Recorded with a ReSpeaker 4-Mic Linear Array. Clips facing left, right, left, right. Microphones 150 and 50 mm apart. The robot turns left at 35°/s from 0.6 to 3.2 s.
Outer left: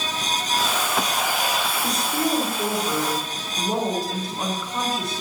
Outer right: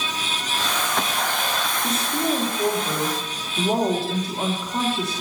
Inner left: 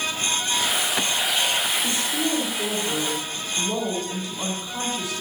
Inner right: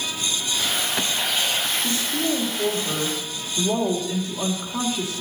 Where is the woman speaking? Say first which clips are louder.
Outer right 1 dB, inner right 1 dB; 15° left, 3 m; by 5.2 s 30° right, 3 m.